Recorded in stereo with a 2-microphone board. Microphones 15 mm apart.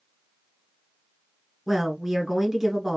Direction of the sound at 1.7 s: 20° right (ahead or behind).